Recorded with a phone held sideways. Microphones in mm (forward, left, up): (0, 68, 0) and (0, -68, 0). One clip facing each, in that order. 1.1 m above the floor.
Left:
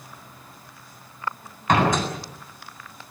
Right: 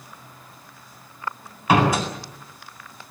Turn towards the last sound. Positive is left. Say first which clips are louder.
# right 2 dB
turn(degrees=-10)  # may be behind; listen again after turning